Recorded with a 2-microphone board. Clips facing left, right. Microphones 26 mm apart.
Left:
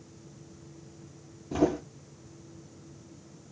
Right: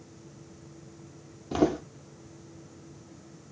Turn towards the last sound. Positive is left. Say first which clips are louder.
# right 1 dB
turn(degrees=-45)  # may be behind; listen again after turning